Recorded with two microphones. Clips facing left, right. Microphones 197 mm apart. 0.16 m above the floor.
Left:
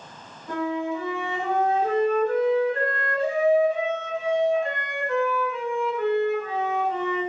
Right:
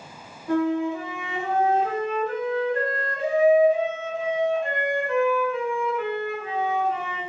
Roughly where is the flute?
Centre.